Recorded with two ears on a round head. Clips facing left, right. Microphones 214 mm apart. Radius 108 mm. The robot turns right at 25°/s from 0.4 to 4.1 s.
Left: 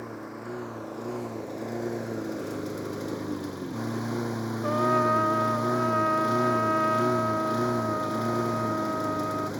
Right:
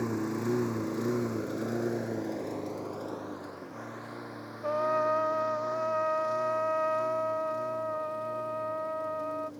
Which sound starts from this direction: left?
A trumpet, at 4.6 s.